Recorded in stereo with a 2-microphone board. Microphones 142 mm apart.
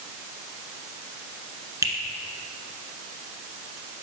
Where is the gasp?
I don't hear a gasp.